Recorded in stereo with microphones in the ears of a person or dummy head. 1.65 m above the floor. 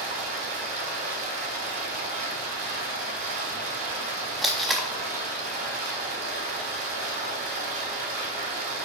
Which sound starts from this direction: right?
Running water, at 0.0 s.